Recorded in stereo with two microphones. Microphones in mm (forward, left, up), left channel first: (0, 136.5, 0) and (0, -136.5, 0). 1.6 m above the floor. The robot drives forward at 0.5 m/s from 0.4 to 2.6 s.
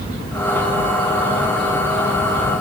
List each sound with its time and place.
Only background noise.